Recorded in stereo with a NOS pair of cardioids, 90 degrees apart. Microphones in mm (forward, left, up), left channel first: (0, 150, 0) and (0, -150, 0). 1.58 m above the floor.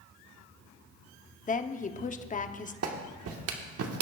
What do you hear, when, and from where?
1.5 s a woman speaking: 25° left, 0.8 m
2.8 s a clap: 55° right, 1.6 m